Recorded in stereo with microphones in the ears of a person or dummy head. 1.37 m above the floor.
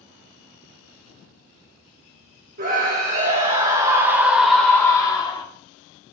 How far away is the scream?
About 1.4 m.